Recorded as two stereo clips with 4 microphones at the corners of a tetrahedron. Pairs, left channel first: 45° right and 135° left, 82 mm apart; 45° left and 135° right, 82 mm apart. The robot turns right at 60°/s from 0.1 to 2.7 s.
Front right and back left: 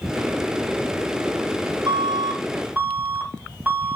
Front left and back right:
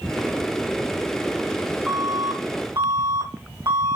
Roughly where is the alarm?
Behind left.